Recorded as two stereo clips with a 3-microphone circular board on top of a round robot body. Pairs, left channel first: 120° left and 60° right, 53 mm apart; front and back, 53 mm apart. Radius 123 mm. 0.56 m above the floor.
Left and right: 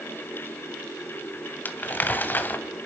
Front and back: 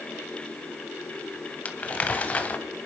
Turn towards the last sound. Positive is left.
turn(degrees=65)